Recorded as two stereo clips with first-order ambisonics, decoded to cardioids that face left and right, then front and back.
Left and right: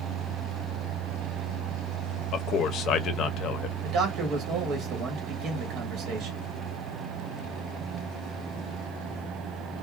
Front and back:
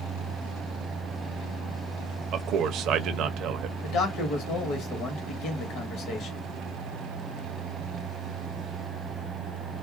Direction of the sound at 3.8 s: 40° right.